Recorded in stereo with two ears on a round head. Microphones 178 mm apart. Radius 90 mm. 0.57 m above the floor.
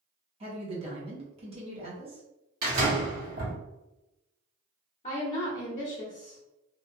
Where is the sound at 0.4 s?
30° right (ahead or behind), 1.0 m.